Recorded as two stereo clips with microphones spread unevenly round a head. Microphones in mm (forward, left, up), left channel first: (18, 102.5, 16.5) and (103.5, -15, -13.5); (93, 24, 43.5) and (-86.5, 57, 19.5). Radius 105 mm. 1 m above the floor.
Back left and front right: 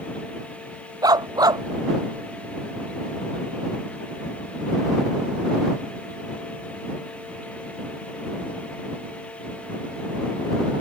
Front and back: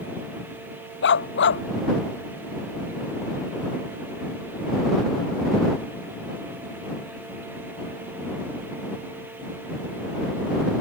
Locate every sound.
1.0 s a dog barking: 10° left